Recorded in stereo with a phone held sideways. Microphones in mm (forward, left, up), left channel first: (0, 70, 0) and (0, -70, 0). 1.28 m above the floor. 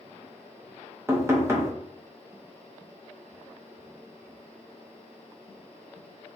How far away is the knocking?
About 0.9 m.